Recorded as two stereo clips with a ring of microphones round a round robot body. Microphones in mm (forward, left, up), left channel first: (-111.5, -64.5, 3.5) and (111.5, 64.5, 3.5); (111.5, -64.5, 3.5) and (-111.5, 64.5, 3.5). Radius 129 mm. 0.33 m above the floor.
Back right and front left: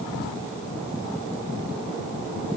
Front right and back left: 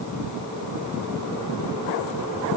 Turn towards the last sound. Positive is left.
No sound to turn to.